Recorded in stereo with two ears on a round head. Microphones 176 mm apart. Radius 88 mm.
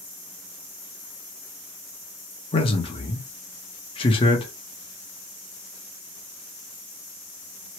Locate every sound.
2.5 s a man speaking: 25° left (ahead or behind), 1.0 m